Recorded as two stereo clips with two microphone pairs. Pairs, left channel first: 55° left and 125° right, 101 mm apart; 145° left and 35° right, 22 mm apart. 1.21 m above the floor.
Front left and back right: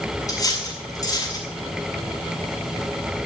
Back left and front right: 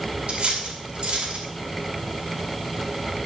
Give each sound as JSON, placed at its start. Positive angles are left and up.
{"t": 0.3, "sound": "cutlery clinking", "azimuth_deg": 0, "distance_m": 5.5}